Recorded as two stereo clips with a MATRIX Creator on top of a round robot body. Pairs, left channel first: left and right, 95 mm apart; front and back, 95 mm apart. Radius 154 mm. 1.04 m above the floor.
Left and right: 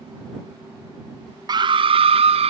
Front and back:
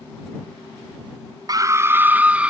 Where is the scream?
135° right; by 2.5 s 100° right.